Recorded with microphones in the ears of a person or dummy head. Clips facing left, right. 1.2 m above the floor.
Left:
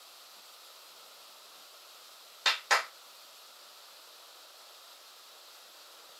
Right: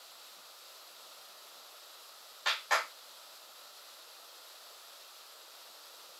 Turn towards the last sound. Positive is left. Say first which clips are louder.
# left 2 dB
turn(degrees=65)  # may be behind; listen again after turning